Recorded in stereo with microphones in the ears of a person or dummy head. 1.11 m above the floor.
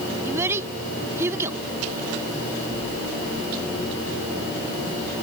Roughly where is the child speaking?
Right.